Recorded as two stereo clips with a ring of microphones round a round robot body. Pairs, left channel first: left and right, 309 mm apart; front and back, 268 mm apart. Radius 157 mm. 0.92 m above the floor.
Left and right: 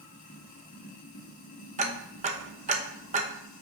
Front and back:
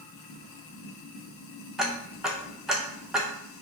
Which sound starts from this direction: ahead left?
Running water, at 0.0 s.